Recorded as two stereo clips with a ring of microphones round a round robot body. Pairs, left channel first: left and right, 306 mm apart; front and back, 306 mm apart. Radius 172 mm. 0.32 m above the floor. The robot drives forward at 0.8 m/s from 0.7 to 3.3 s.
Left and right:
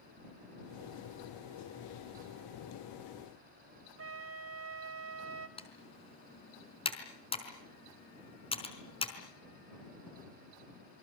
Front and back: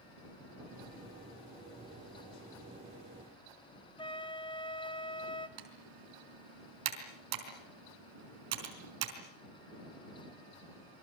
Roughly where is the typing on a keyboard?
Behind.